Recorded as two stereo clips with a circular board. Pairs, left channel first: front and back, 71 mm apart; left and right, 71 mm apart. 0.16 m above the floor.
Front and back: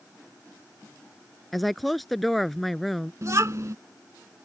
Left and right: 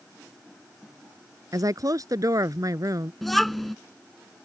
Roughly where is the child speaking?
Behind.